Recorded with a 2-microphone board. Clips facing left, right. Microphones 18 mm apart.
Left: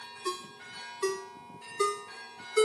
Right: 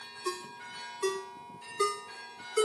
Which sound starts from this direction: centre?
A ringtone, at 0.2 s.